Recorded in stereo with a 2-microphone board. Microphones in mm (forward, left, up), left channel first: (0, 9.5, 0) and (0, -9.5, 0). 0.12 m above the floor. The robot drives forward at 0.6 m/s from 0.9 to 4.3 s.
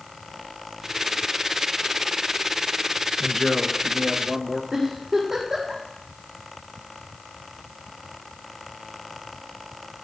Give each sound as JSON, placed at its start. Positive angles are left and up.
{"t": 3.2, "sound": "a man speaking", "side_deg": 20, "distance_m": 1.1}
{"t": 4.7, "sound": "a giggle", "side_deg": -15, "distance_m": 6.5}